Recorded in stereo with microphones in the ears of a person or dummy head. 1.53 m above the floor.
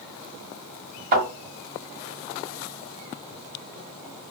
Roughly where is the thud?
Right.